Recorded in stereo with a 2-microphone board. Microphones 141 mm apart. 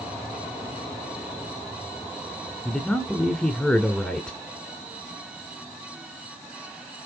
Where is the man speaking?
5° left (ahead or behind), 1.5 m.